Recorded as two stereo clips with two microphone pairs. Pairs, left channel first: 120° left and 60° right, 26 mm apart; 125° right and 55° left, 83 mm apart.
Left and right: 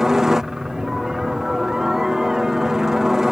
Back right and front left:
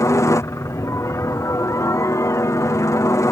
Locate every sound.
0.0 s a helicopter: 120° right